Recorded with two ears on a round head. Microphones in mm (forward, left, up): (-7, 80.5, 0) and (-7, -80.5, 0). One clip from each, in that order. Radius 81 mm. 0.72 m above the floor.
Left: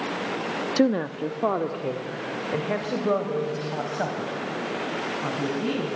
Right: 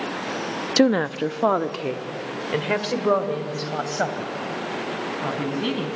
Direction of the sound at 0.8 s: 30° right (ahead or behind).